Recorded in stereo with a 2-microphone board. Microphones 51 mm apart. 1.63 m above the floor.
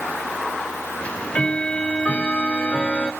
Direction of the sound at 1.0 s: 25° left (ahead or behind).